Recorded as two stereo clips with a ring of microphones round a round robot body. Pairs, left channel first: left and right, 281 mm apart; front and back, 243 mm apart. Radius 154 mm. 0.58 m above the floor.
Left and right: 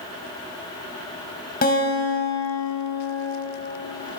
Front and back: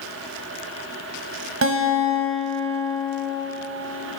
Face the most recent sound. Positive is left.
turn(degrees=150)